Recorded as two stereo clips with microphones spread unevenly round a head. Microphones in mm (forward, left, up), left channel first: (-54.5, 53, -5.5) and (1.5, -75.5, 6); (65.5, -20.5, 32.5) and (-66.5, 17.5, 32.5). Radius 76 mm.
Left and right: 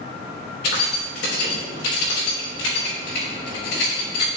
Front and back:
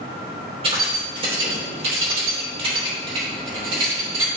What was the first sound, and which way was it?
Keys jangling, 110° left.